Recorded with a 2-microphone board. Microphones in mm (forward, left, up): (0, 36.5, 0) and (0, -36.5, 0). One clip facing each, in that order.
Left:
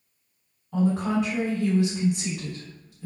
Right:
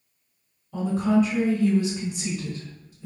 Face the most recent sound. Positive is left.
turn(degrees=75)  # may be behind; listen again after turning